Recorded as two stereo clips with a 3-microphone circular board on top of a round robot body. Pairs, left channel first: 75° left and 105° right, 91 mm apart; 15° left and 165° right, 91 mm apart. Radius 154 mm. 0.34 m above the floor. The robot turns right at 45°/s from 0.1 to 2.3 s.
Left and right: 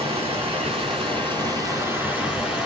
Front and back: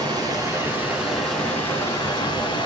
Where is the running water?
120° right, 3 m; by 2.6 s 20° right, 3 m.